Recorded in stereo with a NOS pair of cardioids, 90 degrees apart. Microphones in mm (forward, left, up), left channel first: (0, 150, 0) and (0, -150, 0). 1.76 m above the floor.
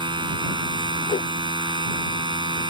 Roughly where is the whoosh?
Ahead left.